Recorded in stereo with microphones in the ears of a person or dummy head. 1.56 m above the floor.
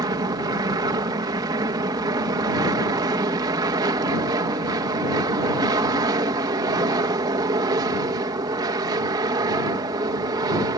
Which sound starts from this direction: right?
An aircraft, at 0.0 s.